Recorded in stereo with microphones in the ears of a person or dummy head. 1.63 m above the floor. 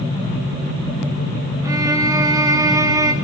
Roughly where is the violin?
Centre.